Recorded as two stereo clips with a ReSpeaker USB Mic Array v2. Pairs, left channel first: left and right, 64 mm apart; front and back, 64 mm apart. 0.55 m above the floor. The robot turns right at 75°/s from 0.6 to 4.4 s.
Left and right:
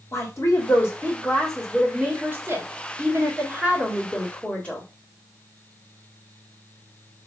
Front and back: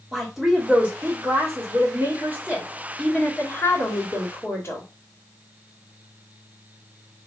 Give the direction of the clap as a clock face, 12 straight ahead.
No clap in this recording.